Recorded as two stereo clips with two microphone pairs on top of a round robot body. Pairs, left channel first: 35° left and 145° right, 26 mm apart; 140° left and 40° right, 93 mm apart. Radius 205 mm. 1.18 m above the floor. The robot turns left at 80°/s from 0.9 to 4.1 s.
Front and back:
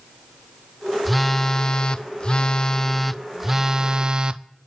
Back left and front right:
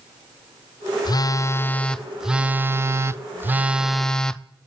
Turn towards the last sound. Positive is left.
turn(degrees=-125)